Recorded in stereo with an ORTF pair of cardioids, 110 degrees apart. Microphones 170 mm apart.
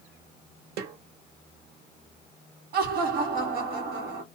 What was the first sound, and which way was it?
A snare drum, 70° right.